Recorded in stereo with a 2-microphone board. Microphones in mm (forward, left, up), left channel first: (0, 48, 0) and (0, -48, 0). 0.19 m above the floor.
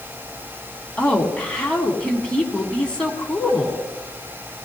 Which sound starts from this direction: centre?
A woman speaking, at 1.0 s.